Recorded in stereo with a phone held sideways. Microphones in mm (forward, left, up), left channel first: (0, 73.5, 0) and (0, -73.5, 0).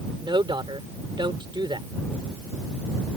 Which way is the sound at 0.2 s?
30° right (ahead or behind).